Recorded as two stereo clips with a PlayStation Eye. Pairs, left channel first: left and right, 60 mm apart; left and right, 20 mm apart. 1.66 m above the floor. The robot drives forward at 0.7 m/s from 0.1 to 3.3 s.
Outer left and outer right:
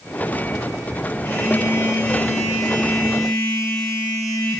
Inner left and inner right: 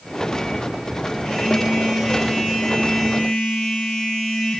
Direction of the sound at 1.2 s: 30° left (ahead or behind).